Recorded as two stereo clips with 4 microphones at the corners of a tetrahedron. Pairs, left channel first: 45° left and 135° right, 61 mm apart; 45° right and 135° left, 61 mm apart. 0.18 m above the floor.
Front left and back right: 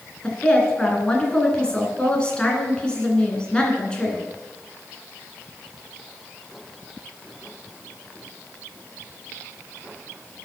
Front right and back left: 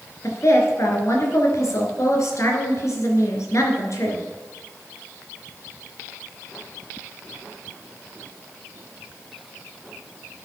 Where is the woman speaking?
25° right, 2.5 m.